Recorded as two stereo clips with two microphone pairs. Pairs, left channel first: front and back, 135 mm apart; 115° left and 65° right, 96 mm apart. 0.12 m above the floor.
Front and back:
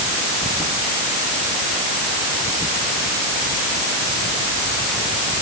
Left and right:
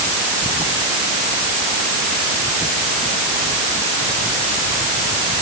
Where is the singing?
I don't hear singing.